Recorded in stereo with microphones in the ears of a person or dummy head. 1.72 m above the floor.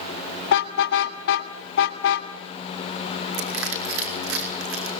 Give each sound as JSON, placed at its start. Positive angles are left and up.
{"t": 0.5, "sound": "a car horn", "side_deg": 60, "distance_m": 2.5}
{"t": 3.3, "sound": "crushing", "side_deg": -85, "distance_m": 5.5}